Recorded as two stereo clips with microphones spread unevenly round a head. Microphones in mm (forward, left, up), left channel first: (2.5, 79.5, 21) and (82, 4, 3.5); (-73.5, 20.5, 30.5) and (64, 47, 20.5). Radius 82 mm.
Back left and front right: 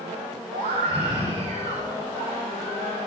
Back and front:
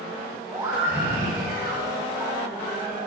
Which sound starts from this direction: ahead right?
A scream, at 0.5 s.